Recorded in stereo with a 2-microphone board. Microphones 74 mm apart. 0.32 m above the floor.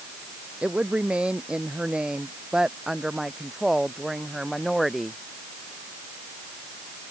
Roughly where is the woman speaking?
Centre.